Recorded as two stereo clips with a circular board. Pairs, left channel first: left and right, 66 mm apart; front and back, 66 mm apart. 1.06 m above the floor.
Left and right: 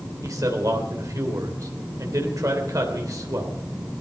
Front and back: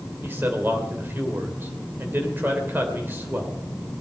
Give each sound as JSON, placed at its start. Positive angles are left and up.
{"t": 0.2, "sound": "a man speaking", "azimuth_deg": -125, "distance_m": 3.5}